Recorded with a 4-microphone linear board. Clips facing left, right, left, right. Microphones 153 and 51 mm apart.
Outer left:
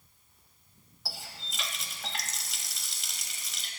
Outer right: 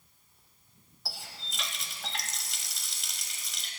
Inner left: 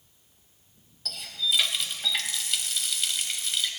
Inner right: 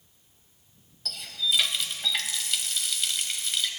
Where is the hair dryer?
No hair dryer in this recording.